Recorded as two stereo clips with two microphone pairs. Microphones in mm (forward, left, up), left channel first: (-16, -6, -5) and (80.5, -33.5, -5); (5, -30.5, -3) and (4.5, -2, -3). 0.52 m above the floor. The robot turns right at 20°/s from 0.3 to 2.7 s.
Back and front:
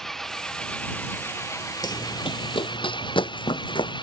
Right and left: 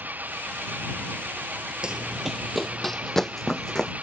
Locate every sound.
0.0 s an engine running: 75° left; by 4.0 s 125° left
1.8 s running footsteps: 140° left; by 3.9 s 160° right